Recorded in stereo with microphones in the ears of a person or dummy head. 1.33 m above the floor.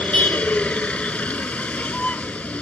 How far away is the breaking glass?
No breaking glass in this recording.